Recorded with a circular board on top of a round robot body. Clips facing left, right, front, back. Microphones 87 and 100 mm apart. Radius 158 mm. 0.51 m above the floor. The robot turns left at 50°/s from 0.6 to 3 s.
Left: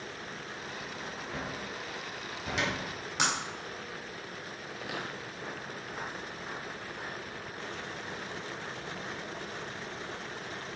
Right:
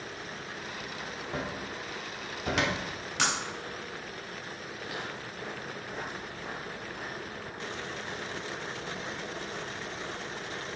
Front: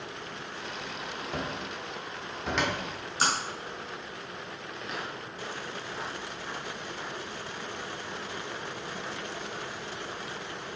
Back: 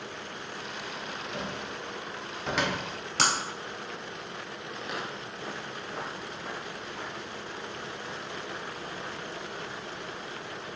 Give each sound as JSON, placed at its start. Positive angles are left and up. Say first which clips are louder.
{"t": 1.3, "sound": "a cupboard door", "louder": "right 4 dB, front 2 dB", "azimuth_deg": -30, "distance_m": 1.8}
{"t": 3.2, "sound": "breaking glass", "louder": "right 1 dB, back 1 dB", "azimuth_deg": 165, "distance_m": 1.3}
{"t": 4.7, "sound": "footsteps", "louder": "left 1 dB, back 1 dB", "azimuth_deg": 95, "distance_m": 0.6}